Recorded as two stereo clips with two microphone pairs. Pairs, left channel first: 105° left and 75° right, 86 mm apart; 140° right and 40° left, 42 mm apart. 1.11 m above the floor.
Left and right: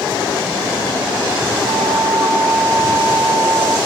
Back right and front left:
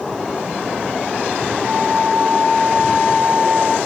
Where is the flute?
45° right, 0.6 m.